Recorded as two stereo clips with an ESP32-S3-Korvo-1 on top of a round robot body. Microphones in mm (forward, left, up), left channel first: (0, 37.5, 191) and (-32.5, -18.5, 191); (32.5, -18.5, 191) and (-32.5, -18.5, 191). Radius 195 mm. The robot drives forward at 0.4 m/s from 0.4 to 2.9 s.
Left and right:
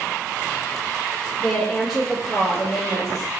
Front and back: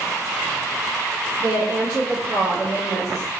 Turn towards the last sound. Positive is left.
turn(degrees=155)